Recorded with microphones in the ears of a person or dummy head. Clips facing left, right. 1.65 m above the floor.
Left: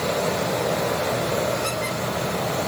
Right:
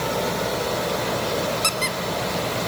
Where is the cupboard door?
I don't hear a cupboard door.